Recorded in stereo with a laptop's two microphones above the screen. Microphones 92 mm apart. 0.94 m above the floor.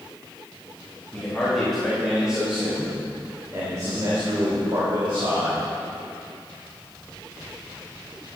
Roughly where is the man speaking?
Centre.